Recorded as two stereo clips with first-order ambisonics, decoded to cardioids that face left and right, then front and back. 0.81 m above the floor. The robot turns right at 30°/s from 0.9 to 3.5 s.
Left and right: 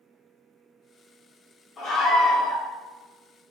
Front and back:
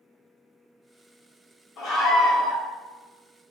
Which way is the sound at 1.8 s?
10° left.